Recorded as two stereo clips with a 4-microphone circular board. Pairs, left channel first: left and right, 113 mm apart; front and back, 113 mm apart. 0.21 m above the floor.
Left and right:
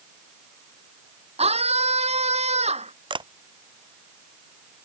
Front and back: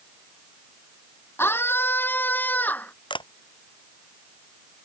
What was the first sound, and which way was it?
A scream, 70° right.